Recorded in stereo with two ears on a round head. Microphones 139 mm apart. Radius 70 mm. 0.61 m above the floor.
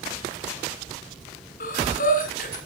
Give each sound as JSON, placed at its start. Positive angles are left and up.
{"t": 1.6, "sound": "breathing", "side_deg": 55, "distance_m": 4.0}